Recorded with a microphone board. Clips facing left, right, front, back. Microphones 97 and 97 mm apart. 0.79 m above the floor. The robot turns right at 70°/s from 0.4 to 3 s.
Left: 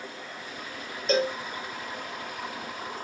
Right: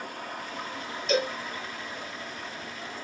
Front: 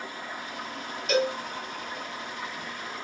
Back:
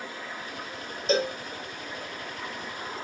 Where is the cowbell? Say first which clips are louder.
Left 2 dB, even; 130° left, 0.9 m; by 1.4 s 150° left, 0.9 m.